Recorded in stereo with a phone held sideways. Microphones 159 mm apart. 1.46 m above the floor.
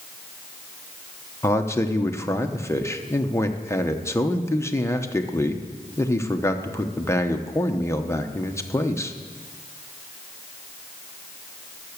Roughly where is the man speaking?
Centre.